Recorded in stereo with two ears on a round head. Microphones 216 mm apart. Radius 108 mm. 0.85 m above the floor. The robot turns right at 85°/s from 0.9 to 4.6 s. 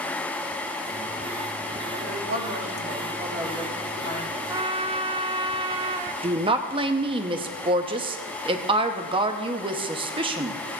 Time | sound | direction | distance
1.9 | a woman speaking | 125° right | 4.5 m
4.5 | a trumpet | 15° right (ahead or behind) | 0.7 m
6.2 | a woman speaking | 20° right (ahead or behind) | 0.9 m